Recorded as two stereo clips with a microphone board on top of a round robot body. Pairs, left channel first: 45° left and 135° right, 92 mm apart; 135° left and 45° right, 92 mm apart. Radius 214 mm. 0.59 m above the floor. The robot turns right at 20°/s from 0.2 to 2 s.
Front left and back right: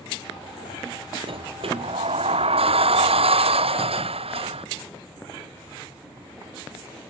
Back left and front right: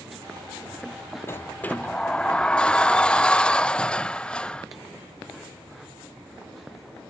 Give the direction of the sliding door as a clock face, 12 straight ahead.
5 o'clock.